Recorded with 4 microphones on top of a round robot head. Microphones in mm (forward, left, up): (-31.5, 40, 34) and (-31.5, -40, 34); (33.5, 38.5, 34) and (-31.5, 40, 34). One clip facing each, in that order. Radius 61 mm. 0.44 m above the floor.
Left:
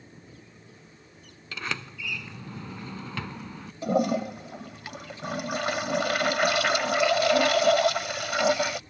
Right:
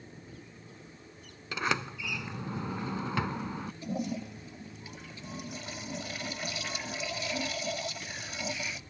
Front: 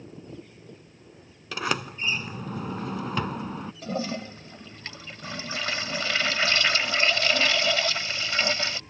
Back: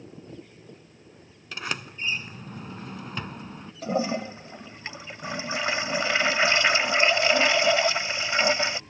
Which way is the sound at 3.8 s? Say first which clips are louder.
Left 12 dB, back 5 dB; 110° left.